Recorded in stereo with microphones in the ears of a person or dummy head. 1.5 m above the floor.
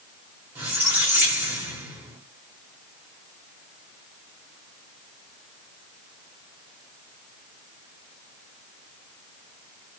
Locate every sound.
0.6 s a squeak: 5° right (ahead or behind), 0.8 m